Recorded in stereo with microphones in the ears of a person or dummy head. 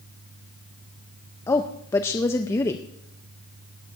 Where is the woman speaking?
10° left (ahead or behind), 0.5 m.